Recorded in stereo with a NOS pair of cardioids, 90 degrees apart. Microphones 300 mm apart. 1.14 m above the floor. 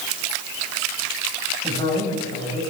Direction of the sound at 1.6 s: 15° left.